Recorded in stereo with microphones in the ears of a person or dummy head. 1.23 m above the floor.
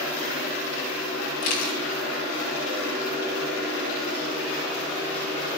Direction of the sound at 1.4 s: 40° left (ahead or behind).